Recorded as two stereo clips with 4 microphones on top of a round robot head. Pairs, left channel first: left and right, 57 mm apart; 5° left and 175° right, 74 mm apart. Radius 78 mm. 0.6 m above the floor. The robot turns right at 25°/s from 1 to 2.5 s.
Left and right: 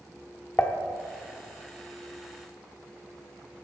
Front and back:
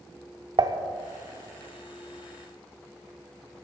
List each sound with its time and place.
0.6 s dishes clattering: 160° left, 0.8 m